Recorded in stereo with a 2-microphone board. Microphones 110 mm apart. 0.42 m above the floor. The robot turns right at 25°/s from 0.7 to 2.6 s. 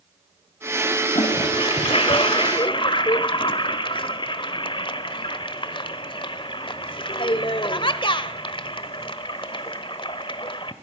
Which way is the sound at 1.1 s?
55° left (ahead or behind).